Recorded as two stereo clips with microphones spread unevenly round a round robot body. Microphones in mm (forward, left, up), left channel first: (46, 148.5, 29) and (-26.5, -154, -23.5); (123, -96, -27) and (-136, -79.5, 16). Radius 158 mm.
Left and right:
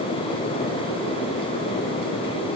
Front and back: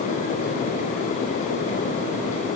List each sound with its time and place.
Only background noise.